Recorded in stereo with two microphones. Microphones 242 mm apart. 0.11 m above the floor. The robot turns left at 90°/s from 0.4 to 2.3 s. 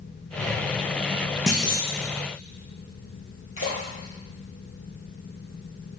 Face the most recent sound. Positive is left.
turn(degrees=60)  # may be behind; listen again after turning